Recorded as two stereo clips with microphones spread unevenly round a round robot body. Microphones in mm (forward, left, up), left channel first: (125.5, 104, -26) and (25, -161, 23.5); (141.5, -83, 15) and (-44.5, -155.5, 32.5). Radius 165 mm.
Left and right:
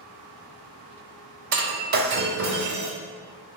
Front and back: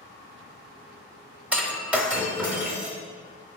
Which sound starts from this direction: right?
Breaking glass, at 1.5 s.